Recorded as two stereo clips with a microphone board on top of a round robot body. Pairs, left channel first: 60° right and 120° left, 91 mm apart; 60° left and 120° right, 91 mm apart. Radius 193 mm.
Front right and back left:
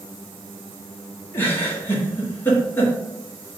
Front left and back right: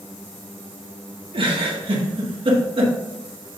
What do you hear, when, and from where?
1.3 s a giggle: 125° right, 1.7 m